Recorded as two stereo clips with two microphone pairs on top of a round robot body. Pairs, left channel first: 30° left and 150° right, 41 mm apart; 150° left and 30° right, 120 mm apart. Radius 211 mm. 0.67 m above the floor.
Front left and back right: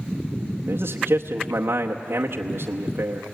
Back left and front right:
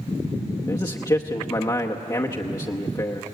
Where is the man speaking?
160° right, 1.1 m.